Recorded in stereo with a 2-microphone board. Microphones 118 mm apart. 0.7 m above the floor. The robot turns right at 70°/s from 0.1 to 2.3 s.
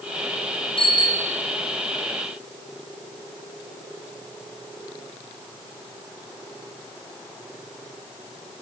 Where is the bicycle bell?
125° left, 3.5 m; by 1.4 s 170° left, 3.5 m.